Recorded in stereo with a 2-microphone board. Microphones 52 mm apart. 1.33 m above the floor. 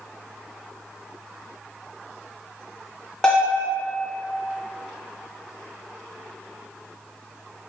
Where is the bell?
15° left (ahead or behind), 0.6 m.